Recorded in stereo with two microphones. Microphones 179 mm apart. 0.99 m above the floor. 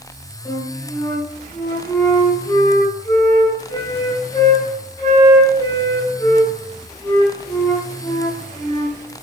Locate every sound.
0.5 s a flute: 20° left (ahead or behind), 3.5 m